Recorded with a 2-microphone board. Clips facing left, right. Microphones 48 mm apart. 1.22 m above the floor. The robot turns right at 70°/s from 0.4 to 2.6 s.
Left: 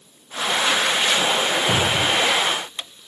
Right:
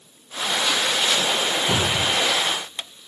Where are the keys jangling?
I don't hear keys jangling.